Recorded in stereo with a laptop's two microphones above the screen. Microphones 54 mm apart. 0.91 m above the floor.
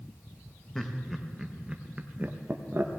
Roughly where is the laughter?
Centre.